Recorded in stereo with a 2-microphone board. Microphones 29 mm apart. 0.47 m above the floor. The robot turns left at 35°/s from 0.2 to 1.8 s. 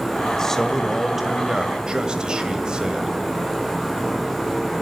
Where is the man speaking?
20° left, 1.9 m; by 3.1 s 30° right, 1.9 m.